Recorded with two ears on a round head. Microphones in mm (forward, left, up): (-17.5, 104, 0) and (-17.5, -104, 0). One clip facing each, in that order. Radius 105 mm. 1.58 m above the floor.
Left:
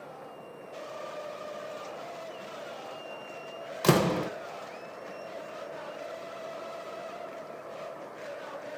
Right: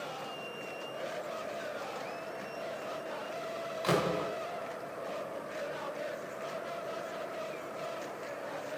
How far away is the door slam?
About 0.8 m.